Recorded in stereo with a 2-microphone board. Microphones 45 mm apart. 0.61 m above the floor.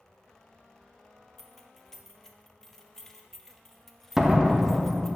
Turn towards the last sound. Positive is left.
turn(degrees=-10)  # may be behind; listen again after turning